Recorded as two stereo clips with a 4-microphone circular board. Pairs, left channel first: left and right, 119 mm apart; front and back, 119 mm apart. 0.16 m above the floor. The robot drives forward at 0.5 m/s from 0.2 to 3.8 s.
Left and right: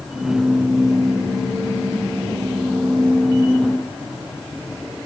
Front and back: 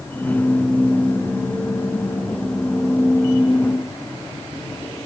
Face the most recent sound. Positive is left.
No sound to turn to.